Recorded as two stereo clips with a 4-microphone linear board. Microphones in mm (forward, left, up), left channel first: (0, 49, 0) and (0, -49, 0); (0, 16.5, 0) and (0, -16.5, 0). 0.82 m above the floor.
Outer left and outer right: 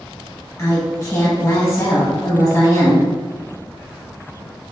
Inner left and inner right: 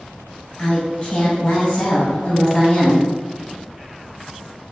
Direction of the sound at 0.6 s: 40° left (ahead or behind).